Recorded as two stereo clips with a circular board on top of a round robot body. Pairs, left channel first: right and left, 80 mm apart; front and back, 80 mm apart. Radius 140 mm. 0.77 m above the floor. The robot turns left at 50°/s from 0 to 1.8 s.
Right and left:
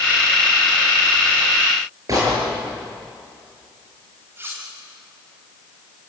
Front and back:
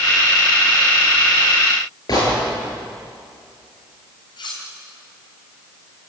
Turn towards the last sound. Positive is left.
turn(degrees=25)